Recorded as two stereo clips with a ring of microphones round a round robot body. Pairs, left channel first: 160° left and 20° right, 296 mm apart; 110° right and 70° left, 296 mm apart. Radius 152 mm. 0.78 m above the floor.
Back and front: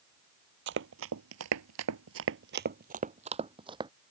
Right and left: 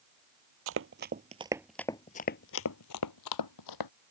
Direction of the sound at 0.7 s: 25° left.